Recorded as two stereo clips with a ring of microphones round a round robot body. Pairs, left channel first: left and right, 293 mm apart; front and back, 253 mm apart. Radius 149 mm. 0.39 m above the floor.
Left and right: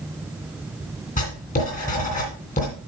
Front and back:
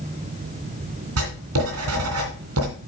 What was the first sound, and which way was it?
Writing, 155° left.